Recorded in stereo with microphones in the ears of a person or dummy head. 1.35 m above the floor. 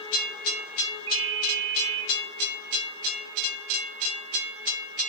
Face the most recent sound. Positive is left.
turn(degrees=-35)  # may be behind; listen again after turning